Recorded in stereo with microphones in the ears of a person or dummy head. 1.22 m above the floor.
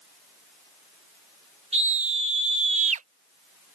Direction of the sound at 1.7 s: 35° right (ahead or behind).